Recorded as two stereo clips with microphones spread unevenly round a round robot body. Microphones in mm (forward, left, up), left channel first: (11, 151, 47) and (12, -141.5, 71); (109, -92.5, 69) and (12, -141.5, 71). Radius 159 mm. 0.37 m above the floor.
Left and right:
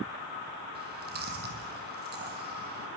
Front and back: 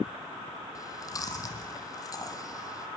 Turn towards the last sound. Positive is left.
turn(degrees=-30)